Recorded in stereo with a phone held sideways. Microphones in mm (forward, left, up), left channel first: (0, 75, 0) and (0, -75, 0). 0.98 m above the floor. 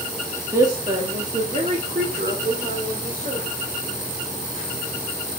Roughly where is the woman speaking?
Centre.